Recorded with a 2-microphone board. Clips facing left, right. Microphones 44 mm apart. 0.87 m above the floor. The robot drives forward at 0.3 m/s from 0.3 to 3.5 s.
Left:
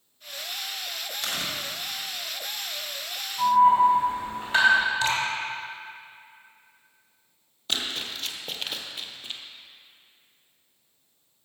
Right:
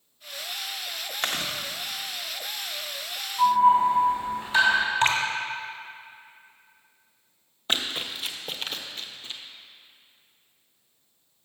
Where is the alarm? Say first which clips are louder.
Left 1 dB; 45° left (ahead or behind), 3.5 m.